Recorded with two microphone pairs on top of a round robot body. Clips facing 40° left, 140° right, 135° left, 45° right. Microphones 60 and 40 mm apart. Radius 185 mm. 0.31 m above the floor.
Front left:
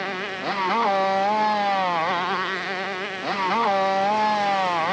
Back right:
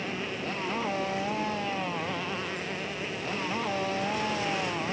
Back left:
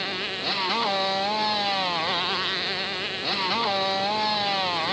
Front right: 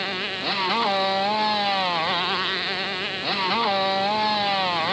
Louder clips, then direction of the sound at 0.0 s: Front left 6 dB, front right 2 dB; 30° left.